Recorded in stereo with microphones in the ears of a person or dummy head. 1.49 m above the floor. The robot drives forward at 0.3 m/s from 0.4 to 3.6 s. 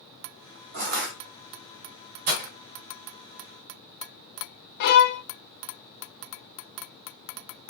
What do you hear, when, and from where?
0.7 s crushing: 40° right (ahead or behind), 1.6 m; by 1.1 s 35° right (ahead or behind), 1.7 m
2.3 s breaking glass: 30° right (ahead or behind), 1.8 m
4.8 s a violin: 50° left (ahead or behind), 0.8 m